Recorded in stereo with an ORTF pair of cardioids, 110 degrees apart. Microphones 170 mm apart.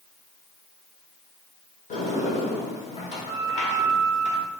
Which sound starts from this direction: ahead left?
A sliding door, at 1.9 s.